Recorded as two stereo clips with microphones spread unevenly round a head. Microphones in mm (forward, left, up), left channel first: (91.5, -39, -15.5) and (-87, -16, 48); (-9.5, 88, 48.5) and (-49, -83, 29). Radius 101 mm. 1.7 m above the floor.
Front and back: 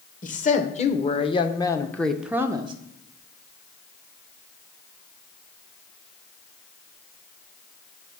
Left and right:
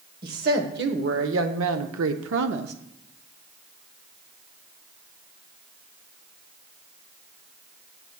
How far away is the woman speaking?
About 1.3 m.